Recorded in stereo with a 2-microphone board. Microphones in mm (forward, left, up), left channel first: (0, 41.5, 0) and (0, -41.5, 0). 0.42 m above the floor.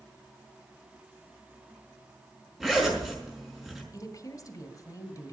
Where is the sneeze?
No sneeze in this recording.